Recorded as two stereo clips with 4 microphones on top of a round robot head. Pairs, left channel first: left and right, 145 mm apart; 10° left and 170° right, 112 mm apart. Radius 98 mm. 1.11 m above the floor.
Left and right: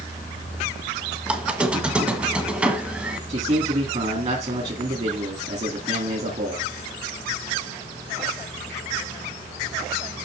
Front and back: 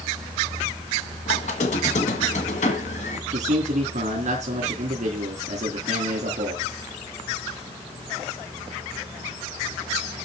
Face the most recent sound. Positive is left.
turn(degrees=-140)